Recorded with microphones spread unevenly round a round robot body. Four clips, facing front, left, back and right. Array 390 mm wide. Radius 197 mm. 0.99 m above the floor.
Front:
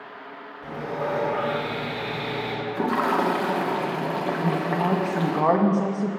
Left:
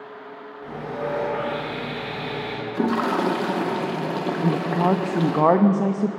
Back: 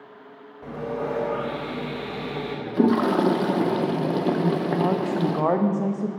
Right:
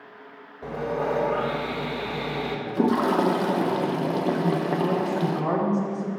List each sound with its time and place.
0.6 s sawing: 120° right, 4 m
2.7 s a toilet flushing: 175° right, 0.6 m
4.4 s a woman speaking: 75° left, 0.9 m